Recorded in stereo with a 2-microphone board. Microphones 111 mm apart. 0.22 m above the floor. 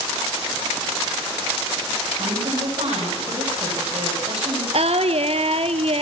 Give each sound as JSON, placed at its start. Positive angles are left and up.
{"t": 2.2, "sound": "a woman speaking", "side_deg": -80, "distance_m": 9.0}
{"t": 4.7, "sound": "singing", "side_deg": -70, "distance_m": 1.1}